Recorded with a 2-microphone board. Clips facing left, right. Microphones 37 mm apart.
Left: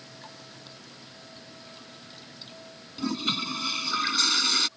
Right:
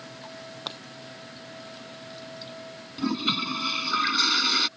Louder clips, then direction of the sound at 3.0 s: Right 2 dB; 10° right (ahead or behind).